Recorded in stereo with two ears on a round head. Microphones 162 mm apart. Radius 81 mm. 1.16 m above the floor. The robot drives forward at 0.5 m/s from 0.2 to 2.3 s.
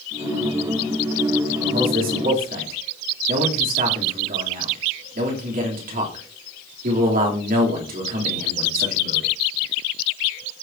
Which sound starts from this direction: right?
A man speaking, at 1.7 s.